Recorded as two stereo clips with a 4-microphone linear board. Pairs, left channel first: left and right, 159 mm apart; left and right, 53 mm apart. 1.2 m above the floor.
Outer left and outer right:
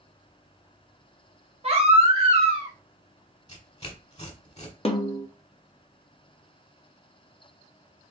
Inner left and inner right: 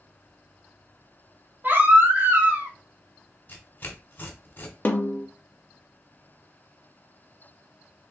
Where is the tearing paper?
45° left (ahead or behind), 1.5 m.